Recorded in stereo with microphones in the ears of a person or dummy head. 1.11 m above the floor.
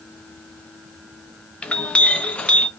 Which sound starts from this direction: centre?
A clink, at 1.6 s.